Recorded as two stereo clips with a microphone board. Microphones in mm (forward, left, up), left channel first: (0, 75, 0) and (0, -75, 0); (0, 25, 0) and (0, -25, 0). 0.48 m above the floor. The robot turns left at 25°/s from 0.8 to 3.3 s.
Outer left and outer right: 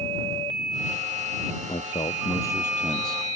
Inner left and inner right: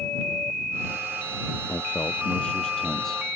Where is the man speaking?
40° left; by 3.2 s straight ahead.